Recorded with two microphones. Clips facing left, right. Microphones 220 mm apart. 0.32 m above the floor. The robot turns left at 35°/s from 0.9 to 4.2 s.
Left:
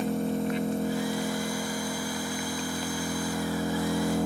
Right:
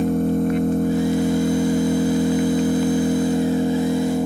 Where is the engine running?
55° right, 1.6 m; by 4.3 s 170° right, 1.6 m.